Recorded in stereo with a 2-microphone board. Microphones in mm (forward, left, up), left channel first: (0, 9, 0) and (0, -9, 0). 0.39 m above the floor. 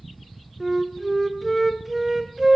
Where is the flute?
5° right (ahead or behind), 0.6 m.